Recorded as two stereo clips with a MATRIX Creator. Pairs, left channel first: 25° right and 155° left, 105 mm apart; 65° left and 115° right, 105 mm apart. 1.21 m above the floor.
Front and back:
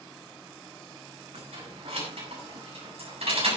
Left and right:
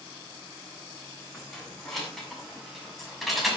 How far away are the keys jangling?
About 7.5 m.